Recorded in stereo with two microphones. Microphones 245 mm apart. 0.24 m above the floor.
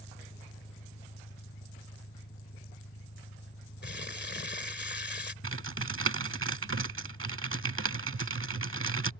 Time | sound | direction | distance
0.0 | an engine running | 45° left (ahead or behind) | ?
3.8 | crumpling | 45° left (ahead or behind) | ?
5.4 | typing on a keyboard | 60° right (ahead or behind) | ?